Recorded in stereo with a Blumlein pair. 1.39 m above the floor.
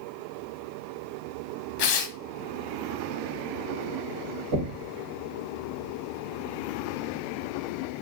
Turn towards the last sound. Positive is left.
turn(degrees=-55)